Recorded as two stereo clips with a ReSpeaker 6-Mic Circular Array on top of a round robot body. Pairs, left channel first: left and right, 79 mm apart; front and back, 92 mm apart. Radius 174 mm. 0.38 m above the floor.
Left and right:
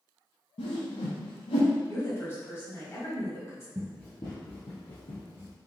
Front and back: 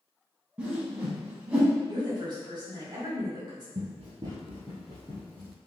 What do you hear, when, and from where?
0.6 s a whoosh: 100° left, 0.6 m
1.9 s a woman speaking: 145° left, 1.8 m
3.8 s running footsteps: 160° right, 0.7 m; by 5.6 s 80° left, 2.5 m